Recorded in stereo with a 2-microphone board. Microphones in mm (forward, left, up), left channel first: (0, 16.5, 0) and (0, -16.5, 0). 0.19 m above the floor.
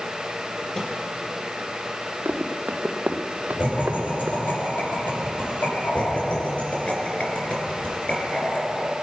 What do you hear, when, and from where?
0.8 s a microwave: 25° left (ahead or behind), 3.5 m
2.2 s running footsteps: 75° right (ahead or behind), 1.7 m; by 4.5 s 65° right (ahead or behind), 0.8 m
3.6 s laughter: 75° left (ahead or behind), 7 m
6.0 s laughter: 40° left (ahead or behind), 2.5 m